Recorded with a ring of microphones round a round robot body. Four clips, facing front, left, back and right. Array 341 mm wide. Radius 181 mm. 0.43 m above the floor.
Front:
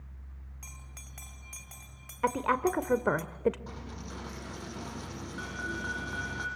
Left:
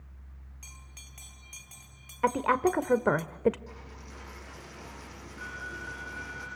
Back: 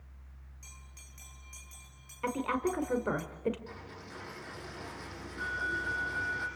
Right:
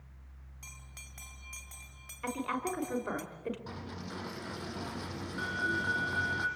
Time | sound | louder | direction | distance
0.6 | a bell | right 2 dB, front 6 dB | 10° right | 2 m
2.2 | a woman speaking | left 10 dB, front 4 dB | 70° left | 1.7 m
3.7 | a dropped coin | right 5 dB, front 3 dB | 50° right | 5.5 m